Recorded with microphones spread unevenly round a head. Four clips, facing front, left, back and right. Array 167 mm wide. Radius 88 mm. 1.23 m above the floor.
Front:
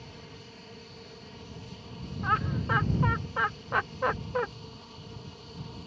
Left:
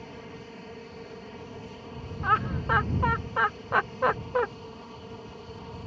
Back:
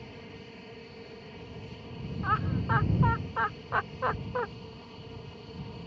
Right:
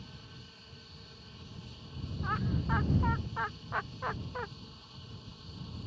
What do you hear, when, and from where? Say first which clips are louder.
0.0 s an aircraft: left 11 dB, back 2 dB; 105° left
2.2 s laughter: left 9 dB, front 1 dB; 70° left